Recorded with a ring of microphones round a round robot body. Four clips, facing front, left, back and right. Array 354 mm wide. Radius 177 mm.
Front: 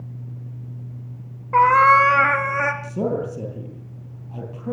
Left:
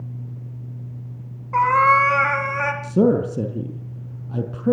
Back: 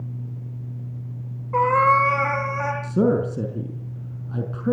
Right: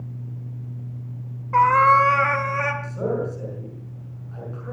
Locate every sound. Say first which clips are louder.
1.5 s a cat meowing: right 1 dB, front 4 dB; 5° right, 1.9 m; by 2.7 s 10° left, 3 m
2.8 s a man speaking: left 8 dB, back 4 dB; 110° left, 5 m